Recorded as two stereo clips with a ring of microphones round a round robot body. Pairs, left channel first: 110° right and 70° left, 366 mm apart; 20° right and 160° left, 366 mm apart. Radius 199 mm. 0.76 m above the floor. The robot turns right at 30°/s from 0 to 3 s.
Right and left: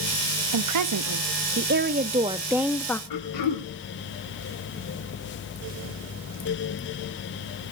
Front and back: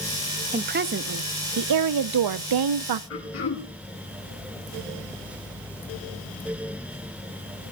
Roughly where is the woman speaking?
Left.